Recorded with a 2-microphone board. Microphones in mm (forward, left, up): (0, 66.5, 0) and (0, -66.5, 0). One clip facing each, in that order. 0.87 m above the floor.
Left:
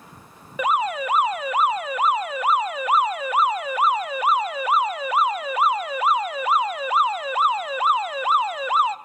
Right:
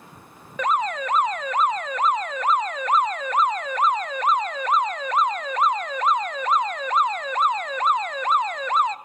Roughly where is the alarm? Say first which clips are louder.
Left 1 dB; centre.